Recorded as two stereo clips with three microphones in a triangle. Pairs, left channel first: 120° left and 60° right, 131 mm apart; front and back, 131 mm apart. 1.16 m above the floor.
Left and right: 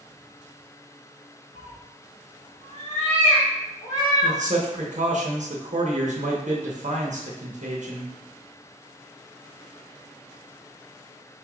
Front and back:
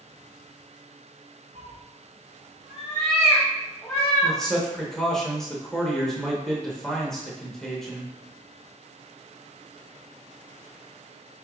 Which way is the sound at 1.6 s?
145° left.